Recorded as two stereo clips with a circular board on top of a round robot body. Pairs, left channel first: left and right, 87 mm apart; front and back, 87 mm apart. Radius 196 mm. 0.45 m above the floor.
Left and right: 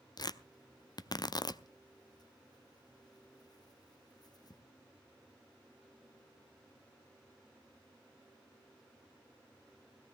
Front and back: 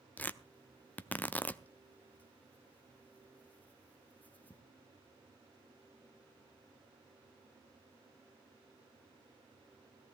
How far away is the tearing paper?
About 0.9 m.